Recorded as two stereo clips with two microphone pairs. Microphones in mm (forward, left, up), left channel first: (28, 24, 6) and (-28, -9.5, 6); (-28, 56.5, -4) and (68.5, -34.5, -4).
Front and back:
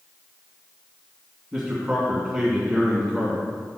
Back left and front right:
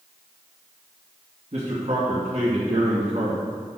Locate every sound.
1.5 s a man speaking: 65° right, 2.5 m